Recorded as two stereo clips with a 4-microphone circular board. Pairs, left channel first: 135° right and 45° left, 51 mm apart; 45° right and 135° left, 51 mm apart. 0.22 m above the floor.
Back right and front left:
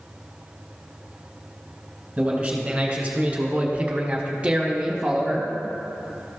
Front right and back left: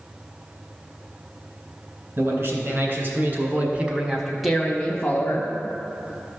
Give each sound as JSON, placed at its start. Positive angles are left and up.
{"t": 2.2, "sound": "a man speaking", "azimuth_deg": 115, "distance_m": 2.5}